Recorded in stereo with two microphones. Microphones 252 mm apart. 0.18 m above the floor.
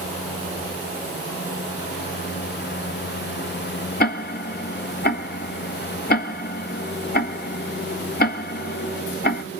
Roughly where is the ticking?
Left.